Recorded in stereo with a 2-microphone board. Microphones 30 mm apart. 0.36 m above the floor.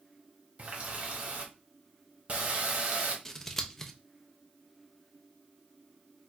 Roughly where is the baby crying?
I don't hear a baby crying.